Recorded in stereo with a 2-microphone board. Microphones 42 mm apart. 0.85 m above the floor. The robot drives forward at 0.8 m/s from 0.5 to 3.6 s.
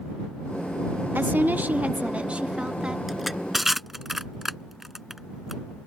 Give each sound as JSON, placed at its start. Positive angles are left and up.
{"t": 1.1, "sound": "a woman speaking", "side_deg": -50}
{"t": 3.1, "sound": "crushing", "side_deg": -5}